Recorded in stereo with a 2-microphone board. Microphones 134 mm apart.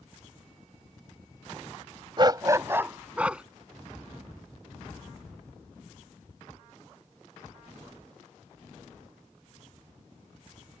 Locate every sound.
2.2 s a dog barking: 35° right (ahead or behind); by 3.4 s 5° right (ahead or behind)